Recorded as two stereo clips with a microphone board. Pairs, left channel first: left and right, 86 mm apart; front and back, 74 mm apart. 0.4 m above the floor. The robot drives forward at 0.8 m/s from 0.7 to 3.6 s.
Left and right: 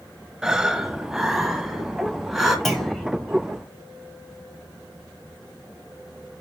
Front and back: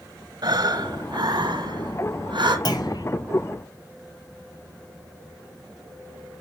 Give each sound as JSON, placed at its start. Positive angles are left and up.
{"t": 0.4, "sound": "breathing", "azimuth_deg": -175, "distance_m": 1.0}
{"t": 2.6, "sound": "a clunk", "azimuth_deg": 5, "distance_m": 2.5}